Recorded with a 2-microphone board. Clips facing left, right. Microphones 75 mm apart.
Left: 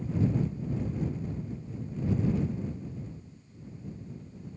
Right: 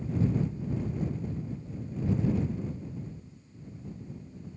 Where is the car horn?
I don't hear a car horn.